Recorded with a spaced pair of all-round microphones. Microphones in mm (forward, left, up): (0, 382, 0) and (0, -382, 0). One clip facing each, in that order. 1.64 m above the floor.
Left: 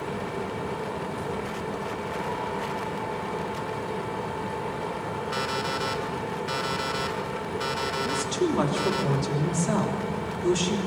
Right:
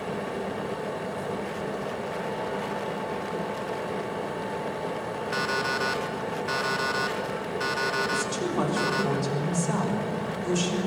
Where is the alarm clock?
15° left (ahead or behind), 2 m.